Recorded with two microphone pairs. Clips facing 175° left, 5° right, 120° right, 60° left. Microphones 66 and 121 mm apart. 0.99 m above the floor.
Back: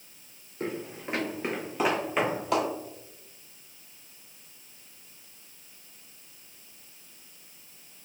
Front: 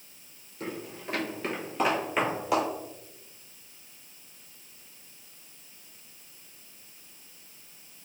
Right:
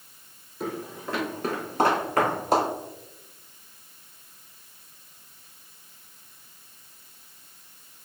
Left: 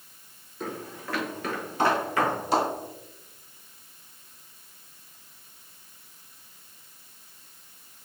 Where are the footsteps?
165° left, 1.1 m; by 2.7 s 90° right, 1.7 m.